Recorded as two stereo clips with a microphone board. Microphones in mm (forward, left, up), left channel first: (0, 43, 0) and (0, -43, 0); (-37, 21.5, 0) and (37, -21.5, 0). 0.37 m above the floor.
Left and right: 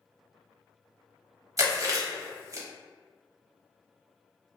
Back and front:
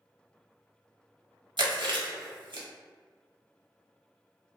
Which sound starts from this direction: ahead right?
Chewing, at 1.6 s.